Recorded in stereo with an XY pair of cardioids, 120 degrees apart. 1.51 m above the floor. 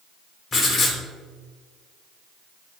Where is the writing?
50° left, 3 m.